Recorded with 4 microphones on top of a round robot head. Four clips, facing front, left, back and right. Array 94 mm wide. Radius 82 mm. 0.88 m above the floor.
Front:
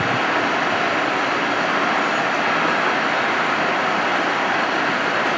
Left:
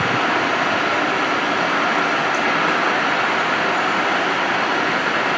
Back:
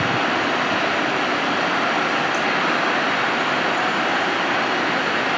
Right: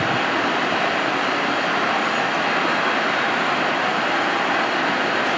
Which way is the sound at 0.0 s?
60° left.